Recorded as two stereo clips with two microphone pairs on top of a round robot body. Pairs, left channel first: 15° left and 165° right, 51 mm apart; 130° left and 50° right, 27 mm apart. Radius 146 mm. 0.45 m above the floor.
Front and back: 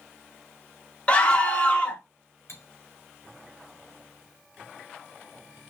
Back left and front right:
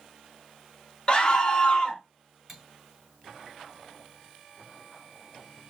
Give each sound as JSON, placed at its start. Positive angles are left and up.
{"t": 1.1, "sound": "a scream", "azimuth_deg": 70, "distance_m": 3.5}
{"t": 2.5, "sound": "cutlery clinking", "azimuth_deg": 40, "distance_m": 4.0}